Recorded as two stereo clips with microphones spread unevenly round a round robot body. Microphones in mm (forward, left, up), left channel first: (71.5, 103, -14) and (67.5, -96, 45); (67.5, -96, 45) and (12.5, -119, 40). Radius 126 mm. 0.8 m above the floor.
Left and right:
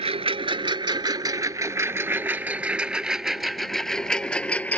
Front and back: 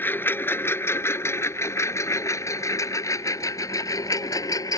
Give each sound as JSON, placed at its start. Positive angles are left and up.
{"t": 0.0, "sound": "a lawn mower", "azimuth_deg": -35}